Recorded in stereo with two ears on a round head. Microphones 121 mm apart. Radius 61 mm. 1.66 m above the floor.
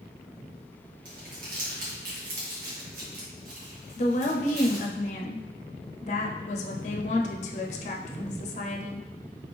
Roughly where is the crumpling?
Right.